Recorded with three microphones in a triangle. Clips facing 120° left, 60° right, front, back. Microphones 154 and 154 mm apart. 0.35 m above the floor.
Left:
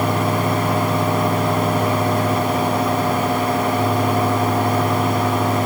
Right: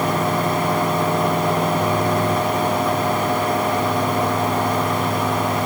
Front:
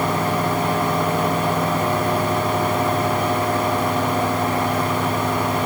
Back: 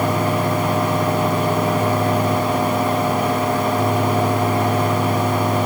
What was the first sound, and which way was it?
Only background noise.